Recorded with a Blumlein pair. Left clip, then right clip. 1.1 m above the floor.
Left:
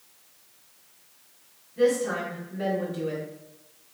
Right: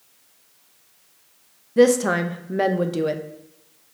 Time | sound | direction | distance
1.8 | a woman speaking | 40° right | 0.5 m